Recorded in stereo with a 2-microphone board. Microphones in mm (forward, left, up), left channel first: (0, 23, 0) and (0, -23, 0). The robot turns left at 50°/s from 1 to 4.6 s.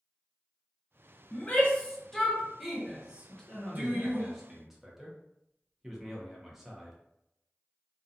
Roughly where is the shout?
Left.